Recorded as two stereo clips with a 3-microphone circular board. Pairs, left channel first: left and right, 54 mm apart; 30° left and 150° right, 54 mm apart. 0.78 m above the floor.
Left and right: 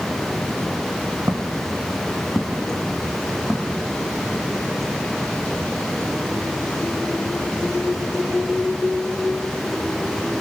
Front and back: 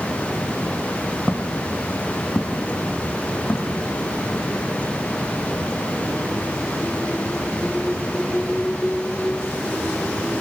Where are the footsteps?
75° right, 1.2 m; by 4.4 s 10° right, 2.5 m.